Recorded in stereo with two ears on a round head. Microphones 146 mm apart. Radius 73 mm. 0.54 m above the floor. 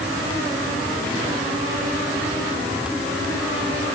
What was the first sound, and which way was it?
Only background noise.